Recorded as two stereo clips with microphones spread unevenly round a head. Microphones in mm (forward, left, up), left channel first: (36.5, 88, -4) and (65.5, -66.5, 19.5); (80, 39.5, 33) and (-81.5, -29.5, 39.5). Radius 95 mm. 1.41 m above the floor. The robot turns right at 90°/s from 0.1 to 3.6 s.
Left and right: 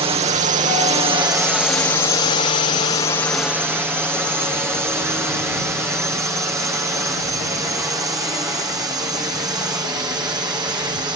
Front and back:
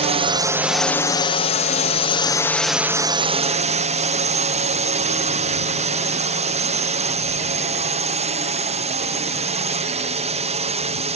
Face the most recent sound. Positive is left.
turn(degrees=-140)